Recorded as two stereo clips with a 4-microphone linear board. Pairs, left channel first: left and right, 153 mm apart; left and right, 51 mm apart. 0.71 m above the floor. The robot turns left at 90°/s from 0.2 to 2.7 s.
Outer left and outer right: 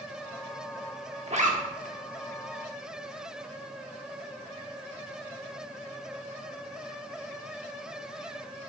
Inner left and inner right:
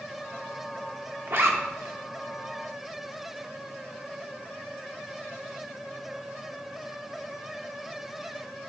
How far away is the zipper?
About 1.0 m.